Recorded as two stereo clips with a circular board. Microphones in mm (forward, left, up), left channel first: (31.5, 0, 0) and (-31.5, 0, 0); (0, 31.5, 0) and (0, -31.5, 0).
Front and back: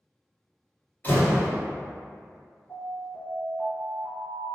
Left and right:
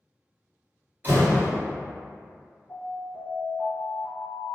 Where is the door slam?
50° right, 1.7 m.